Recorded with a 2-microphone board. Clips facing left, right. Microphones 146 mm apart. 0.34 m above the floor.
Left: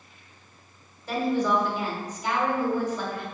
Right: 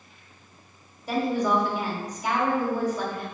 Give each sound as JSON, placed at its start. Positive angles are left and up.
{"t": 1.1, "sound": "a woman speaking", "side_deg": -10, "distance_m": 1.7}